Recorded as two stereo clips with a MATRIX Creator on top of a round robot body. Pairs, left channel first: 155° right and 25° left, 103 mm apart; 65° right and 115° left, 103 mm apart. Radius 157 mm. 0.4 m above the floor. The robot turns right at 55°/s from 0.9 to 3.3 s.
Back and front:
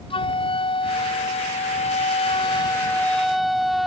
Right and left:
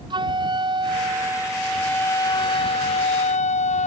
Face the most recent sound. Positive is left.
turn(degrees=-65)